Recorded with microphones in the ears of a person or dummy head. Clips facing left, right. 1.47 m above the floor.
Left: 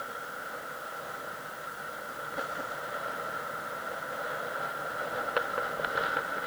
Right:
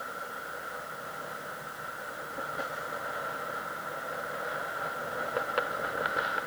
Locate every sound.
Only background noise.